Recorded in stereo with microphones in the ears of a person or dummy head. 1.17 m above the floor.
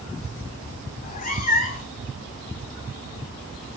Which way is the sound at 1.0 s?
45° left (ahead or behind).